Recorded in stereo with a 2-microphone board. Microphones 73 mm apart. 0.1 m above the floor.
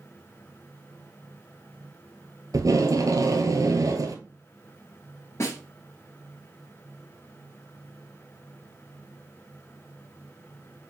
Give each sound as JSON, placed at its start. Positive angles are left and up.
{"t": 2.5, "sound": "tape being pulled", "side_deg": -50, "distance_m": 0.8}
{"t": 5.4, "sound": "a snare drum", "side_deg": 40, "distance_m": 1.4}